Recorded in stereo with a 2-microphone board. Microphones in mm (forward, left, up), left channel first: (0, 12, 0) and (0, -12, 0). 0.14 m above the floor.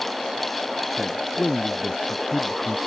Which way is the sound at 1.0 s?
60° left (ahead or behind).